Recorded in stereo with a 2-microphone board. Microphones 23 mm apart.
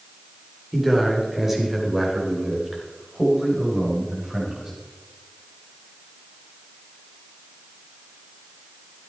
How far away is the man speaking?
About 3 m.